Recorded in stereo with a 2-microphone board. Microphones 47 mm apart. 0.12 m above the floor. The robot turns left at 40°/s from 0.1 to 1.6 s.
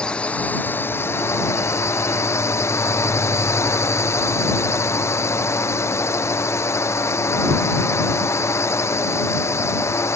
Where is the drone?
155° left; by 10.2 s 95° left.